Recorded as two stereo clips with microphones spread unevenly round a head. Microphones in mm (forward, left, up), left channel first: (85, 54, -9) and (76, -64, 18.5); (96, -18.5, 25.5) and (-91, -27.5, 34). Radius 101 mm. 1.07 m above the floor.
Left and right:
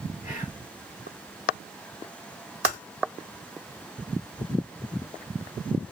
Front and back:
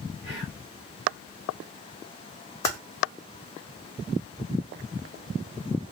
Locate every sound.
0.2 s whispering: 105° left, 2 m
2.6 s typing on a keyboard: 75° left, 1.2 m